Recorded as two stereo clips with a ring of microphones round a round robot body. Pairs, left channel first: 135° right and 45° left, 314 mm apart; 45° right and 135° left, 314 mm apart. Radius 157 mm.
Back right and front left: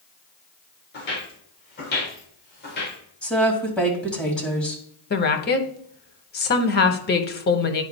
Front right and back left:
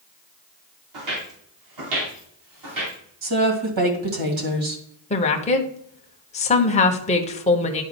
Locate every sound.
0.9 s footsteps: 165° left, 3.5 m
3.2 s a woman speaking: 140° left, 2 m
5.1 s a woman speaking: 100° right, 0.9 m